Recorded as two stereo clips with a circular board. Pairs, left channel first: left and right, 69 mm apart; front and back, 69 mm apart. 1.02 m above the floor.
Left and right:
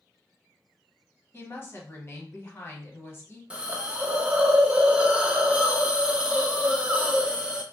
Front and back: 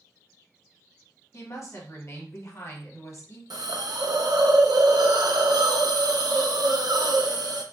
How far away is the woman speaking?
About 1.0 m.